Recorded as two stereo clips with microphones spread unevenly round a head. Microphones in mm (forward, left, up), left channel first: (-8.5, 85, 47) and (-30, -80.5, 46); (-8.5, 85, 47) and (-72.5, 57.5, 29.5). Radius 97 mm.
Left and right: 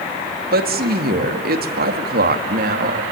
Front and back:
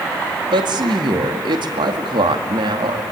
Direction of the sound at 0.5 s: 130° right.